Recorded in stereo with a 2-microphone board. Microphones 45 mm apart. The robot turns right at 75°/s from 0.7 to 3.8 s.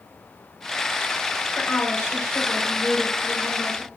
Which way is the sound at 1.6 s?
55° left.